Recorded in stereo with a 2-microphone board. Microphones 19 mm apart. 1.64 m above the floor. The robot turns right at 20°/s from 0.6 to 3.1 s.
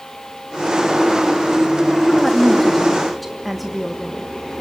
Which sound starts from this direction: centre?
A woman speaking, at 2.0 s.